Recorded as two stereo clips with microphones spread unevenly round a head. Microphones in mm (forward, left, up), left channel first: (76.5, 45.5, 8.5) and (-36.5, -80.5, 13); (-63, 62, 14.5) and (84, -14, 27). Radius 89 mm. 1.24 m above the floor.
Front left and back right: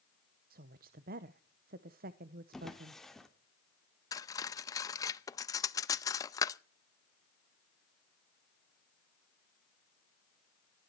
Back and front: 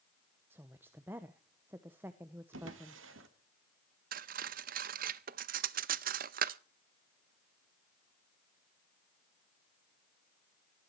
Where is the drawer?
40° right, 2 m.